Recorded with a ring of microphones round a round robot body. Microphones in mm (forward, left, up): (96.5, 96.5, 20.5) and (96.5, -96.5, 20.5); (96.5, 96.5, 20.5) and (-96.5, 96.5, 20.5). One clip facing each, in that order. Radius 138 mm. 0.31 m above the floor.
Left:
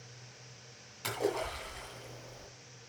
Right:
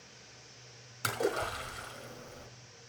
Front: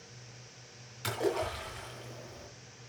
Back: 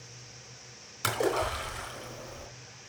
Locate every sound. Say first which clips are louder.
1.0 s a splash: right 1 dB, back 3 dB; 135° right, 3.5 m